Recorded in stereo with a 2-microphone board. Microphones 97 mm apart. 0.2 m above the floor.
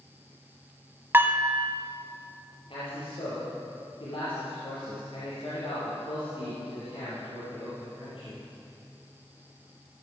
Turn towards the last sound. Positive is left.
turn(degrees=65)  # may be behind; listen again after turning